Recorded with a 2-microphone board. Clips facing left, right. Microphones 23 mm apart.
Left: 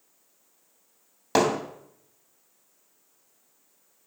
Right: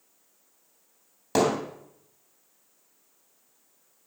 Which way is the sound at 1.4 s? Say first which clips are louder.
Left 1 dB; 25° left (ahead or behind).